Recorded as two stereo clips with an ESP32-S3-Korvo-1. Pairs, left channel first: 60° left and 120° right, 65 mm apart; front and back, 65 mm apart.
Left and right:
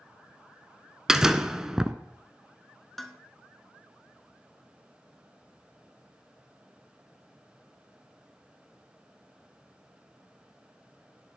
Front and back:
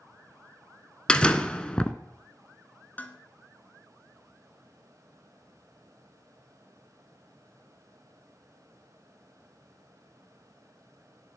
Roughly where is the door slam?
Ahead right.